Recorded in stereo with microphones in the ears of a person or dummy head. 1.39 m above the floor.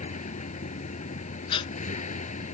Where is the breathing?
25° left (ahead or behind).